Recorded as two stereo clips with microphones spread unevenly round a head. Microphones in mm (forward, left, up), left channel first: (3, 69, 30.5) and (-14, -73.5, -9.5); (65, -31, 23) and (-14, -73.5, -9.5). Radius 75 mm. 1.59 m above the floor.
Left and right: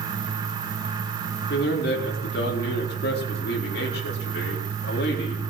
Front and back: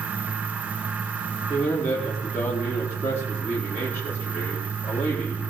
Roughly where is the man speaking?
Left.